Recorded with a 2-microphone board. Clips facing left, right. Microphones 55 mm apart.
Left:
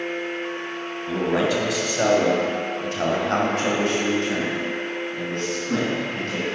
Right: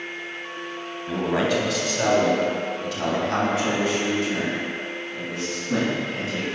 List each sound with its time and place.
1.1 s a man speaking: 10° left (ahead or behind), 2.5 m; by 6.4 s 50° left (ahead or behind), 3.5 m